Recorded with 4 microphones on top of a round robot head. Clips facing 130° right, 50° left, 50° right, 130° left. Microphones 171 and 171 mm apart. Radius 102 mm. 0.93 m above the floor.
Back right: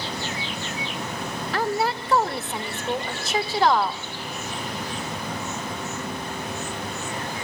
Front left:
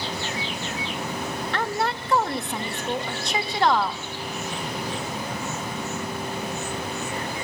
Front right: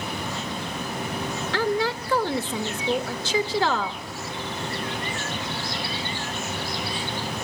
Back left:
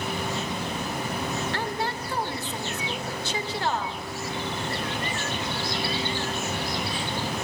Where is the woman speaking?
40° right, 1.3 m.